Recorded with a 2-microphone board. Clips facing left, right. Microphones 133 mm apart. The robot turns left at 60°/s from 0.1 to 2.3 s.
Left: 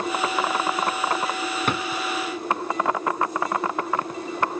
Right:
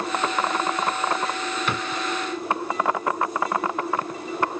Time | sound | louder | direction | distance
1.7 | a drawer | left 3 dB | 50° left (ahead or behind) | 1.2 m